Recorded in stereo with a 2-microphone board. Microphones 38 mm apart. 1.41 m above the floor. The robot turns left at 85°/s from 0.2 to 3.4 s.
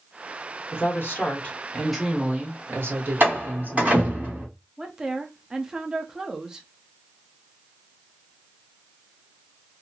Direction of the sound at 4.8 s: 20° right (ahead or behind).